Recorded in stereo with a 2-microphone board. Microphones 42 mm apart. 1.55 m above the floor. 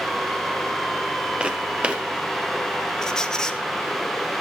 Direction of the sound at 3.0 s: 15° left (ahead or behind).